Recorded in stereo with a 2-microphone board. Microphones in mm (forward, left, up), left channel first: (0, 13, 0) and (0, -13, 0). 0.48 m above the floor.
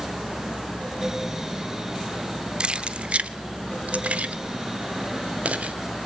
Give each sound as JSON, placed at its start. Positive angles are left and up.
{"t": 2.6, "sound": "keys jangling", "side_deg": -40, "distance_m": 0.6}